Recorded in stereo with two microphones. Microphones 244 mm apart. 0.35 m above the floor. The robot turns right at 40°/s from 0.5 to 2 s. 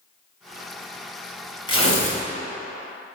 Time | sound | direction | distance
1.7 | tearing paper | 20° left (ahead or behind) | 2.5 m